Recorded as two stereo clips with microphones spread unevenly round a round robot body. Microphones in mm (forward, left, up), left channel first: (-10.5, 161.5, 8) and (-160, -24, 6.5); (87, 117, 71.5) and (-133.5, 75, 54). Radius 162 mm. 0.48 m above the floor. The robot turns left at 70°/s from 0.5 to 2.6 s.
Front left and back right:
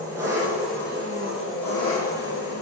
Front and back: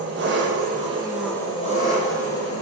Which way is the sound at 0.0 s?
150° left.